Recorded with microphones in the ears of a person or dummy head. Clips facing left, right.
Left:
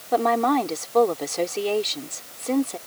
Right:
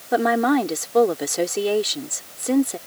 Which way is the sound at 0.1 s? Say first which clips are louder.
Right 2 dB; 15° right (ahead or behind).